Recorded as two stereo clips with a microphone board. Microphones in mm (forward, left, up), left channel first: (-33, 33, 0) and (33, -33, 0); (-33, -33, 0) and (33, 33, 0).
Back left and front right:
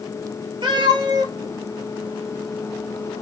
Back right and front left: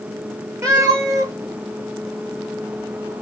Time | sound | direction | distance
0.6 | a cat meowing | 10° right | 1.3 m